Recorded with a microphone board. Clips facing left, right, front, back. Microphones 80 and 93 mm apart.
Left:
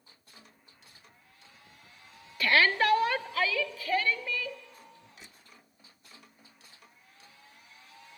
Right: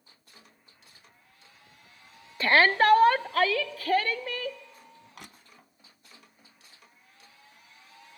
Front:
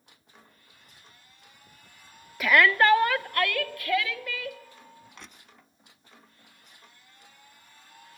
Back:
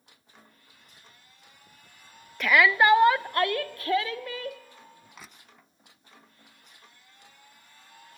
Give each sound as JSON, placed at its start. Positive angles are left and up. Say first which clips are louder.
{"t": 2.4, "sound": "a shout", "louder": "right 4 dB, even", "azimuth_deg": -80, "distance_m": 0.6}
{"t": 5.2, "sound": "crushing", "louder": "right 5 dB, even", "azimuth_deg": -95, "distance_m": 1.1}